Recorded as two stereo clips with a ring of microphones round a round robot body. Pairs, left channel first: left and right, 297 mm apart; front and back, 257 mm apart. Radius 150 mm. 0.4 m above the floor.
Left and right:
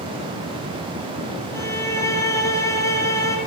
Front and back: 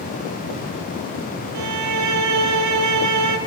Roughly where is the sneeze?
I don't hear a sneeze.